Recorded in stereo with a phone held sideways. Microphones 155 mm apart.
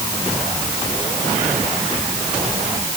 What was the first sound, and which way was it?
Only background noise.